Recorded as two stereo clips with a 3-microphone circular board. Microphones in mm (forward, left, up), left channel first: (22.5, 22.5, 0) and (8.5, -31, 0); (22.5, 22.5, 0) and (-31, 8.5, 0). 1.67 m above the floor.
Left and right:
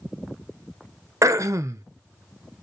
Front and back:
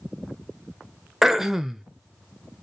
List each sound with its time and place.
1.2 s throat clearing: 85° right, 0.6 m